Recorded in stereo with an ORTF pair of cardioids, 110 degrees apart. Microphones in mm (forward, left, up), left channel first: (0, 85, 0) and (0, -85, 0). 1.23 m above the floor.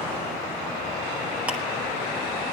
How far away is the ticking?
About 1.8 m.